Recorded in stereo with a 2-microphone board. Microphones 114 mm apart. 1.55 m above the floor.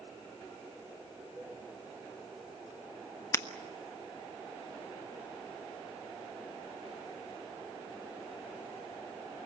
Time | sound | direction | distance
1.4 | a cowbell | 10° right (ahead or behind) | 4.5 m
3.3 | breaking glass | 25° left (ahead or behind) | 0.9 m